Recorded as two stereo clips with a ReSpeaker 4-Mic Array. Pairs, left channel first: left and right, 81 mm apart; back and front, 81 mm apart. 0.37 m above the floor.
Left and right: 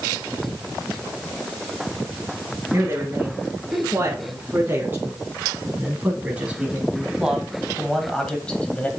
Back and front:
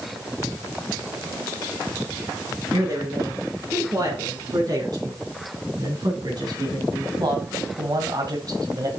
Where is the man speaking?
35° right, 4.5 m; by 8.9 s 25° left, 1.7 m.